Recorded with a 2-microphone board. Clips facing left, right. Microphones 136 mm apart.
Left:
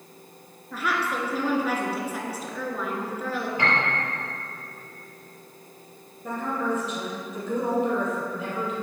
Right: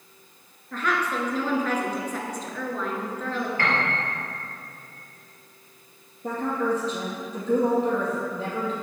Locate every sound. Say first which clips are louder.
0.7 s a woman speaking: right 1 dB; 10° left (ahead or behind), 1.5 m
3.6 s a piano: even; 20° left (ahead or behind), 3 m
6.2 s a woman speaking: right 2 dB; 30° right (ahead or behind), 3 m